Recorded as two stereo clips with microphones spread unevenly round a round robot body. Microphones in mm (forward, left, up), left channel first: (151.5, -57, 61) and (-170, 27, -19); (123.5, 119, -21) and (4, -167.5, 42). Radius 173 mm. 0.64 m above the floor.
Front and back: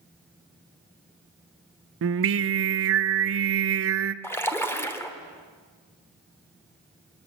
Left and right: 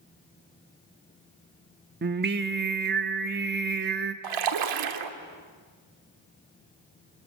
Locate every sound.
2.0 s singing: 175° right, 0.7 m
4.2 s a splash: 100° right, 1.4 m